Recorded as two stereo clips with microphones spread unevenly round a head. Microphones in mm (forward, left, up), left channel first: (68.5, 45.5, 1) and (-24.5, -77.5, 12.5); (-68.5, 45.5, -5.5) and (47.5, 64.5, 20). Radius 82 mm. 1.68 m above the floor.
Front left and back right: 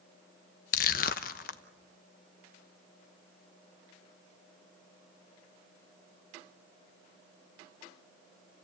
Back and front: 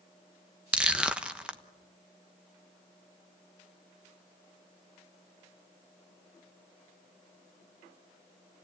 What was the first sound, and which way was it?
Crushing, 80° left.